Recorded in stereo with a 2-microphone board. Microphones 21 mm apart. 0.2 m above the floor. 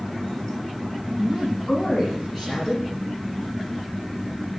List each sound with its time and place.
1.2 s a woman speaking: 10° right (ahead or behind), 4 m